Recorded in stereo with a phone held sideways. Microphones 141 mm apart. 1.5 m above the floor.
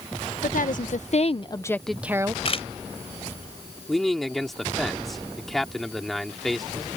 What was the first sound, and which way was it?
A woman speaking, 75° left (ahead or behind).